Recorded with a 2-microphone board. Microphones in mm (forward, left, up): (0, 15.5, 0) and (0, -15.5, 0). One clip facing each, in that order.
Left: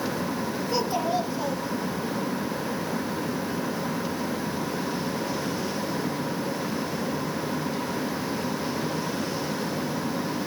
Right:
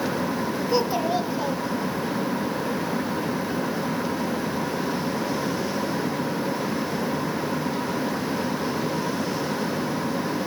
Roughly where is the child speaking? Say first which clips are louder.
Right 3 dB; centre.